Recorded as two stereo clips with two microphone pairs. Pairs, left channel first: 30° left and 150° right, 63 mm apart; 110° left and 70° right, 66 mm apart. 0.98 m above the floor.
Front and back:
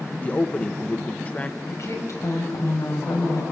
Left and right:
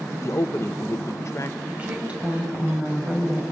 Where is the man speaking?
85° left, 0.8 m.